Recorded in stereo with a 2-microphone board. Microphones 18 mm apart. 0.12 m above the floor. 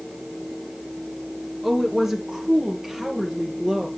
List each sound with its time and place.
1.6 s a woman speaking: 20° right (ahead or behind), 1.8 m; by 3.9 s 25° right (ahead or behind), 3.5 m